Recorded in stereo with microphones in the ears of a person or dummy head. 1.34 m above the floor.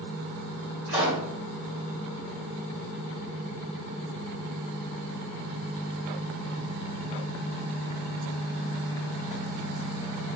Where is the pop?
45° left (ahead or behind), 1.6 m.